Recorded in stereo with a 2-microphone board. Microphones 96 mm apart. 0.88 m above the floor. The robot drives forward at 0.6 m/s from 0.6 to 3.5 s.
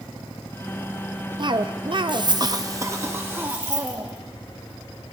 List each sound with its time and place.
1.4 s a cough: 50° right (ahead or behind), 0.6 m; by 4.1 s 25° right (ahead or behind), 1.2 m
3.5 s keys jangling: 45° right (ahead or behind), 0.9 m